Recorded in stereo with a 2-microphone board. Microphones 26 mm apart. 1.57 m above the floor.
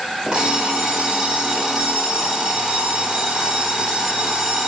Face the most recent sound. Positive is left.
turn(degrees=-30)  # may be behind; listen again after turning